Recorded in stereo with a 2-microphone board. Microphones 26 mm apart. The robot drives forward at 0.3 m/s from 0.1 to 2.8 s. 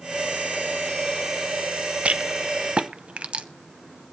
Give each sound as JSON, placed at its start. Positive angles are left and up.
{"t": 2.0, "sound": "a rattle", "side_deg": -45, "distance_m": 0.7}